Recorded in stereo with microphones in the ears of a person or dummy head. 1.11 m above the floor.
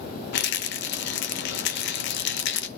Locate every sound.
0.3 s a rattle: 55° left (ahead or behind), 0.8 m